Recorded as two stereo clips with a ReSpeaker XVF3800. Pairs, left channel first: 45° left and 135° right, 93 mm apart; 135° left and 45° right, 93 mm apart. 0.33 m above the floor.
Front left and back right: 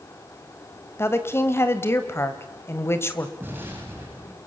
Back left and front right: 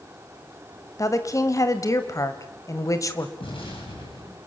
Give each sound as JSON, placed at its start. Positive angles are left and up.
{"t": 1.0, "sound": "a woman speaking", "azimuth_deg": 100, "distance_m": 2.0}
{"t": 3.4, "sound": "an explosion", "azimuth_deg": 155, "distance_m": 9.5}